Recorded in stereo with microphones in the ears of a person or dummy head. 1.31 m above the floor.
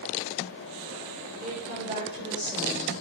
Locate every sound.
1.4 s a woman speaking: 45° right (ahead or behind), 4.5 m; by 2.9 s 25° right (ahead or behind), 6 m